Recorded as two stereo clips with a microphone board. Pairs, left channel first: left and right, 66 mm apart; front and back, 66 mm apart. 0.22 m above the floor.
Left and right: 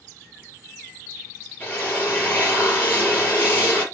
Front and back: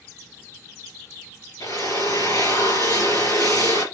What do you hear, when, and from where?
1.6 s a drill: 25° left, 4.5 m